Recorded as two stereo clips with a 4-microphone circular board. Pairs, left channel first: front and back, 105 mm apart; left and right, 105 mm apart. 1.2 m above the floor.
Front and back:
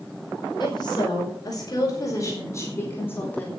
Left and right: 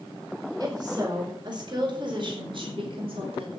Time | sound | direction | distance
0.6 | a woman speaking | 45° right | 6 m